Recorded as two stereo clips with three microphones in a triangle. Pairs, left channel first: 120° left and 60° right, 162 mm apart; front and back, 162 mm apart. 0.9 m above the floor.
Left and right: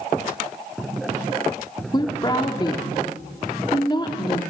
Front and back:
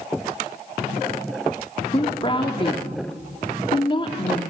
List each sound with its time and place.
1.9 s a woman speaking: 60° left, 1.6 m